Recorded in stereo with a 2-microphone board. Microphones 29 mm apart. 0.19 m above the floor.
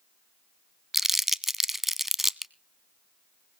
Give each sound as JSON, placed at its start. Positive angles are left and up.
{"t": 0.9, "sound": "crumpling", "side_deg": -10, "distance_m": 0.5}